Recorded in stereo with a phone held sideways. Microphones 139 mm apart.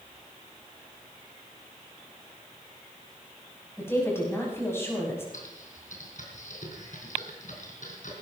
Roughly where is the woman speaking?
Centre.